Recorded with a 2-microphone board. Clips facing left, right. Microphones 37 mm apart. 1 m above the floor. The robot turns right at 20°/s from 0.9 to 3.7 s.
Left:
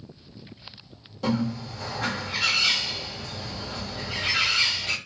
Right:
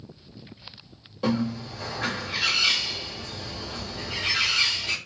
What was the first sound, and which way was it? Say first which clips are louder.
A bird: right 1 dB; 20° right.